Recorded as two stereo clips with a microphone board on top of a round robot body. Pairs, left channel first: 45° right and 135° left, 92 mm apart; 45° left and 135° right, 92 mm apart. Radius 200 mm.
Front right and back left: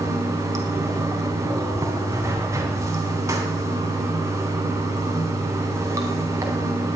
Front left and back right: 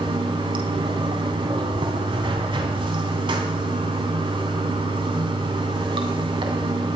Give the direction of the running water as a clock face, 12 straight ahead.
5 o'clock.